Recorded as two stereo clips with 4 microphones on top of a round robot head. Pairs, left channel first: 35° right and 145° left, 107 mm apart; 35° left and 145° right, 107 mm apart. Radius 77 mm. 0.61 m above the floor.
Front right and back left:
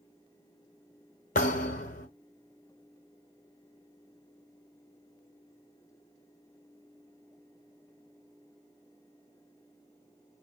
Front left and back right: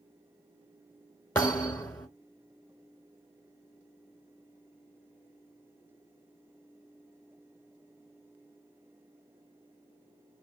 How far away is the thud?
About 1.3 m.